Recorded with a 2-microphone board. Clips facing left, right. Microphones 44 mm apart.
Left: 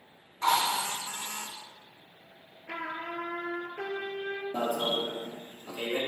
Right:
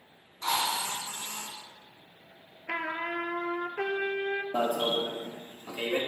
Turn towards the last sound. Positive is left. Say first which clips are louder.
# right 1 dB
turn(degrees=-45)  # may be behind; listen again after turning